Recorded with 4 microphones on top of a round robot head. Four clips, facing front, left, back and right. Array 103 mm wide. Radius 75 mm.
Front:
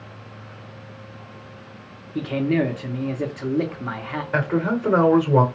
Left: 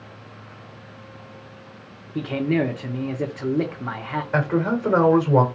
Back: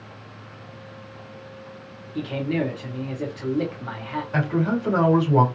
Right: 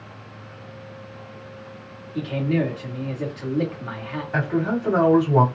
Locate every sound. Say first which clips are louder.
2.1 s a man speaking: left 1 dB, front 4 dB; 55° left, 0.9 m
4.3 s a man speaking: left 1 dB, front 2 dB; 40° left, 2 m